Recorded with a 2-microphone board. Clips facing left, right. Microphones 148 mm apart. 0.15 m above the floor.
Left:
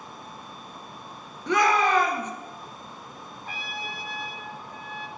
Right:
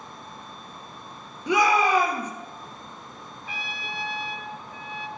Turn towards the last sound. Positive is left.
turn(degrees=50)  # may be behind; listen again after turning